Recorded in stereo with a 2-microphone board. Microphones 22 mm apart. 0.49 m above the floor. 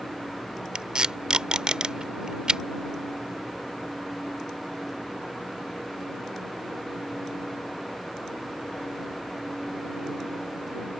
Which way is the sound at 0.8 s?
45° right (ahead or behind).